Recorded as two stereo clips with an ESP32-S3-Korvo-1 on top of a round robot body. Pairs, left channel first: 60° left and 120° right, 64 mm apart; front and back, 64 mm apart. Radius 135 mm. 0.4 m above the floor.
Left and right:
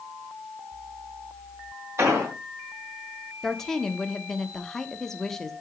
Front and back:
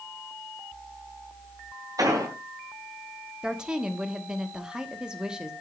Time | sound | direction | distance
2.0 | an explosion | 160° right | 3.5 m
3.4 | a woman speaking | 130° left | 1.4 m